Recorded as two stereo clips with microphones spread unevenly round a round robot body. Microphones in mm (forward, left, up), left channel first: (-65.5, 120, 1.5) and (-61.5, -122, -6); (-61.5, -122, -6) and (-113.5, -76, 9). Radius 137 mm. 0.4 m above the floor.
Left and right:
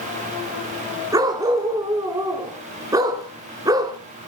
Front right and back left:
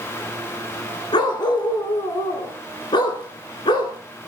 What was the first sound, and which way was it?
A dog barking, 10° right.